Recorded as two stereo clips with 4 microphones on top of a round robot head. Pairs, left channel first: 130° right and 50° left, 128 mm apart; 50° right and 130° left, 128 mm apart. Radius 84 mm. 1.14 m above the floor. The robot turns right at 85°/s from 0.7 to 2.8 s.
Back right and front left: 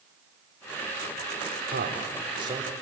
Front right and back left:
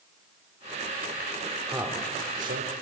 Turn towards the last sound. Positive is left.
turn(degrees=140)